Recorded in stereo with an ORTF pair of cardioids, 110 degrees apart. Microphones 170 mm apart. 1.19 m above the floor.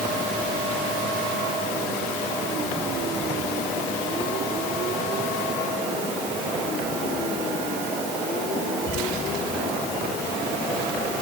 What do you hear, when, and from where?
Only background noise.